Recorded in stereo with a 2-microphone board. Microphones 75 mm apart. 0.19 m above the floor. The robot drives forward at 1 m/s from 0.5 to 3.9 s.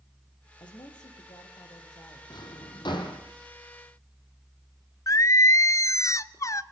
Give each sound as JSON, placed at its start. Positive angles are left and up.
{"t": 0.6, "sound": "a woman speaking", "side_deg": 75, "distance_m": 4.0}
{"t": 2.3, "sound": "a drawer", "side_deg": 70, "distance_m": 3.0}
{"t": 5.1, "sound": "singing", "side_deg": 45, "distance_m": 0.5}